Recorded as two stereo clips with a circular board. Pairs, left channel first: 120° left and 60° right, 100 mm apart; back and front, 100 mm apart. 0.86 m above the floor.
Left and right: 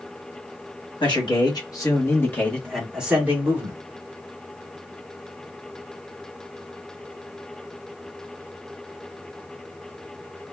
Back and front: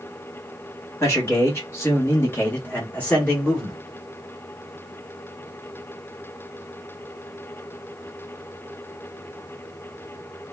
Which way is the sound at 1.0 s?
125° left.